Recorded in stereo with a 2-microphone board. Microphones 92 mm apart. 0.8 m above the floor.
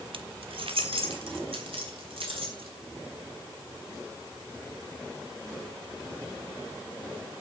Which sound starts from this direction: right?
Keys jangling, at 0.1 s.